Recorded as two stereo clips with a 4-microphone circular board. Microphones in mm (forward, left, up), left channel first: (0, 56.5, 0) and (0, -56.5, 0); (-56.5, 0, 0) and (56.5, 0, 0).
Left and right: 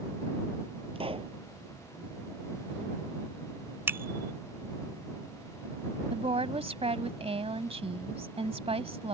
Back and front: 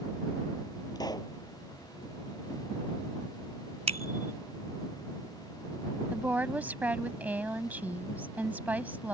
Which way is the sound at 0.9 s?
125° right.